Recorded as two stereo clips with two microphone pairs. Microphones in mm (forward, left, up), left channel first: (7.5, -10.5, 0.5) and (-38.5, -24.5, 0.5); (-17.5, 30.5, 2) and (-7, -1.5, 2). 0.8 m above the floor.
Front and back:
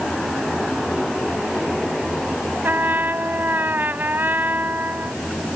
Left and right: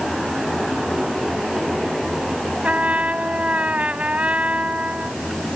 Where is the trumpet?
120° right.